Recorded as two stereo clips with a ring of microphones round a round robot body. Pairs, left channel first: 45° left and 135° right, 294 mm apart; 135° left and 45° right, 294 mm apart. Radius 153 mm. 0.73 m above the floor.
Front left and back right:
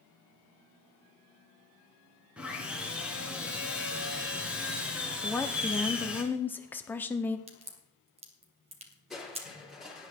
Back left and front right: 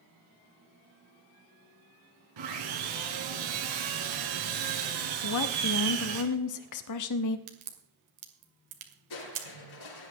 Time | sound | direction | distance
2.4 | sawing | 50° right | 3.5 m
5.2 | a woman speaking | 130° left | 1.1 m
7.5 | a crack | 65° right | 2.5 m
9.1 | crushing | 135° left | 4.5 m